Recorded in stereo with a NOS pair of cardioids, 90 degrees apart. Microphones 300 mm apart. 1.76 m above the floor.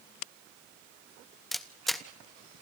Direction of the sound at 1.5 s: Straight ahead.